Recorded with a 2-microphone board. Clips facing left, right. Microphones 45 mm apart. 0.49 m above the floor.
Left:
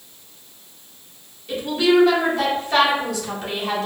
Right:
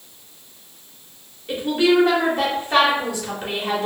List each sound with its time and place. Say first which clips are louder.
1.5 s a woman speaking: even; 30° right (ahead or behind), 0.9 m